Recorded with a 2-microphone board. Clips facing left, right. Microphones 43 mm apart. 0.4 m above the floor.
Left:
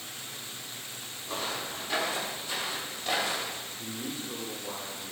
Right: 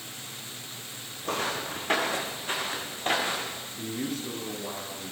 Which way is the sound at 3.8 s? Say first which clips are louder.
Right 8 dB; 80° right.